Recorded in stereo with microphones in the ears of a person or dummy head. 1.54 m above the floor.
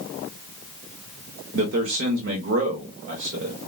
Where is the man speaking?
65° right (ahead or behind), 0.9 m.